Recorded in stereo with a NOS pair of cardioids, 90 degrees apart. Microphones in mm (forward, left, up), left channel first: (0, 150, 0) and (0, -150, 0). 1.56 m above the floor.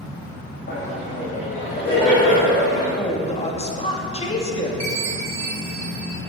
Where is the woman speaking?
20° left, 2.5 m.